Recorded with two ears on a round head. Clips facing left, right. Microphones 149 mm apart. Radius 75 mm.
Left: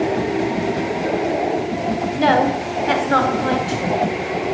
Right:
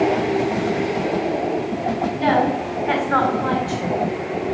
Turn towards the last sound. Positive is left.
turn(degrees=15)  # may be behind; listen again after turning